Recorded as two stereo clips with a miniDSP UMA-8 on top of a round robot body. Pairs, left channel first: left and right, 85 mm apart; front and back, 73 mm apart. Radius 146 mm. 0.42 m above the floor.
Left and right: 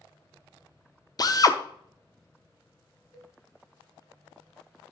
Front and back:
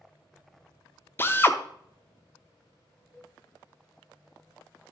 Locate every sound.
1.2 s a drill: 55° left, 0.9 m
3.1 s a cowbell: 55° left, 4.5 m